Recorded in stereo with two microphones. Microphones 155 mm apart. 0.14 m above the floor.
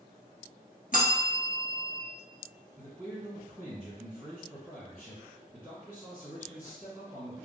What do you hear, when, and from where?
0.9 s a bell: 60° left (ahead or behind), 1.0 m
2.8 s a man speaking: 15° right (ahead or behind), 1.6 m